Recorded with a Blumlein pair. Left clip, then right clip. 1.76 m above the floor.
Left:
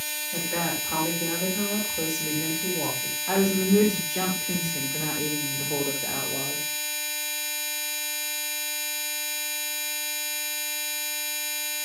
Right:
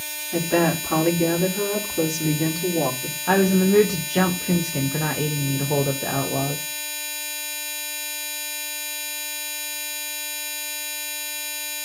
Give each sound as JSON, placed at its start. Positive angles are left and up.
{"t": 0.3, "sound": "a woman speaking", "azimuth_deg": -55, "distance_m": 5.5}
{"t": 3.3, "sound": "a woman speaking", "azimuth_deg": -35, "distance_m": 2.5}